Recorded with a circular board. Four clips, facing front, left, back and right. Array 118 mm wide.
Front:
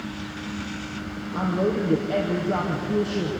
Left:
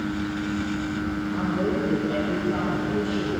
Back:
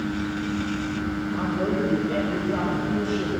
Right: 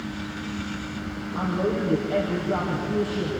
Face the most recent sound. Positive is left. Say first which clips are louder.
# right 2 dB, front 3 dB
turn(degrees=-5)